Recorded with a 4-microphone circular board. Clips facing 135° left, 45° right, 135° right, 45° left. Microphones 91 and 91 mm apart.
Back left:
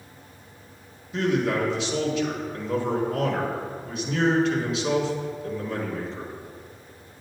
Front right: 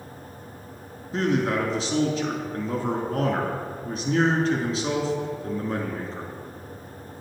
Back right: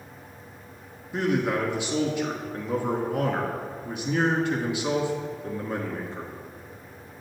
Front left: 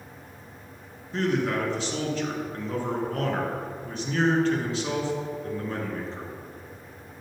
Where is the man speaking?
65° right, 1.3 m.